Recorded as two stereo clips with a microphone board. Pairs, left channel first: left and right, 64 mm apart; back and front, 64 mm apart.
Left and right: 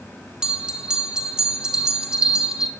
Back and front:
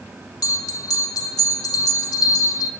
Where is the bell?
165° right, 2.5 m.